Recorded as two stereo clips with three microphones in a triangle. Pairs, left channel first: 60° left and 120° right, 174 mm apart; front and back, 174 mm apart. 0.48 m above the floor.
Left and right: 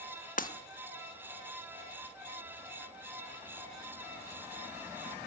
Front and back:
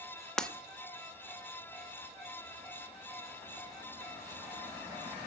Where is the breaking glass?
85° left, 0.8 m.